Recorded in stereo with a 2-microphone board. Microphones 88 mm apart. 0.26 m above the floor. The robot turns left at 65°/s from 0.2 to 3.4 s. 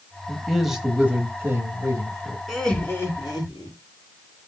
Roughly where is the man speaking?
Ahead.